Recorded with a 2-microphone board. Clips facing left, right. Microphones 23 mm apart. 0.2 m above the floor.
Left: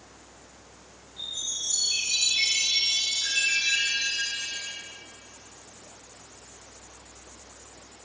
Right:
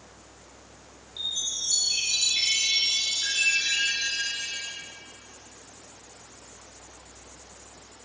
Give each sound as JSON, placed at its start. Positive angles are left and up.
{"t": 1.2, "sound": "a chime", "side_deg": -70, "distance_m": 6.0}